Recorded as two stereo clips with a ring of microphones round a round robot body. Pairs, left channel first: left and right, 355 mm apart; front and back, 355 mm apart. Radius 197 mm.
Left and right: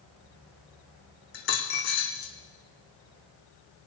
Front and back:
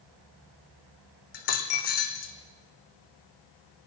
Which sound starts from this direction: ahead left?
A dropped coin, at 1.3 s.